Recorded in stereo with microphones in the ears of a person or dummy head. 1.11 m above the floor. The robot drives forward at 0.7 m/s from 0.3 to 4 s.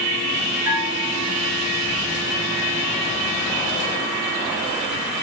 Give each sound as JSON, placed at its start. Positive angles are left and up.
{"t": 0.7, "sound": "a bell", "side_deg": -80, "distance_m": 4.5}